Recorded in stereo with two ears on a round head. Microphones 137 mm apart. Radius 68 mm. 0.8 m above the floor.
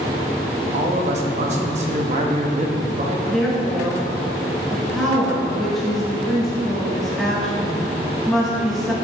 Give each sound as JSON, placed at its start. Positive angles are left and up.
{"t": 0.7, "sound": "a man speaking", "side_deg": -45, "distance_m": 0.9}
{"t": 3.3, "sound": "a woman speaking", "side_deg": 0, "distance_m": 1.6}